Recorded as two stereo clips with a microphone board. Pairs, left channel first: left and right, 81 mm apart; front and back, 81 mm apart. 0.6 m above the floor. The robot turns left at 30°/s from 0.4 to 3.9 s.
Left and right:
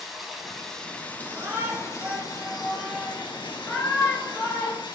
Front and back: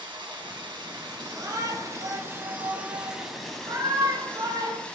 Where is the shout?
135° right, 3.5 m; by 4.8 s 145° left, 3.5 m.